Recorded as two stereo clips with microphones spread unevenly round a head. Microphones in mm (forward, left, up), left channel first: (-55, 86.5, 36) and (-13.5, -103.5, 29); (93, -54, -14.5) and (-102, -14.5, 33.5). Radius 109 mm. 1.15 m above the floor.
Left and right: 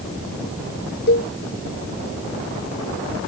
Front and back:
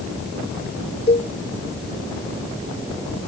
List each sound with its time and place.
1.1 s a cowbell: 55° left